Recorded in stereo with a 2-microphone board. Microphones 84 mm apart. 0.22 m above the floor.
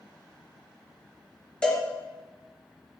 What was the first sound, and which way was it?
A cowbell, 10° left (ahead or behind).